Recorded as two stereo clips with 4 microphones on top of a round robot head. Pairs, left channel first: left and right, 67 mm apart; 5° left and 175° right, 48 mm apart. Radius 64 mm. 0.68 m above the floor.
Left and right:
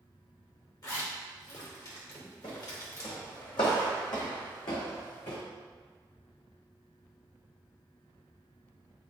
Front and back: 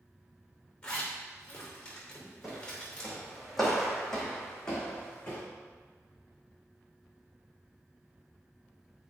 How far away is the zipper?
About 2.5 m.